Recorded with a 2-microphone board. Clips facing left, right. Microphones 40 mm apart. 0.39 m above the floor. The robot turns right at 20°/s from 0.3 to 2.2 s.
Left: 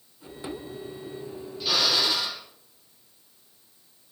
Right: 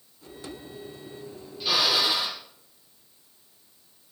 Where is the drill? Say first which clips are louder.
Right 1 dB; 5° right (ahead or behind), 8 m; by 2.4 s 20° right (ahead or behind), 8 m.